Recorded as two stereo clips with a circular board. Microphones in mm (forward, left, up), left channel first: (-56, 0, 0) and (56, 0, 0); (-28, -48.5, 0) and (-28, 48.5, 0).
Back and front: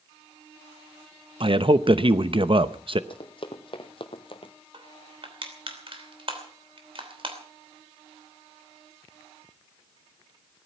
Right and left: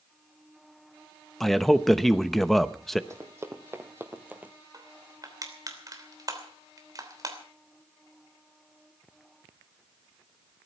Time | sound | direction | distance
1.4 | a man speaking | 5° right | 0.8 m
3.1 | running footsteps | 145° left | 2 m
4.7 | crushing | 40° left | 3 m